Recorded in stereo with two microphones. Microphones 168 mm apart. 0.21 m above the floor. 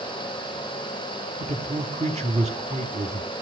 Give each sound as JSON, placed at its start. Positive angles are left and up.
{"t": 1.4, "sound": "a man speaking", "side_deg": -45, "distance_m": 1.6}